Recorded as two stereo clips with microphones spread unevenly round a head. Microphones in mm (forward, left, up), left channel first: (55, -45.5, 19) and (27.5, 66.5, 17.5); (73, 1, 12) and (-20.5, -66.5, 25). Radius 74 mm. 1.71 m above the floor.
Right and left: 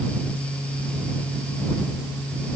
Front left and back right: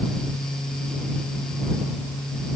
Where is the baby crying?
I don't hear a baby crying.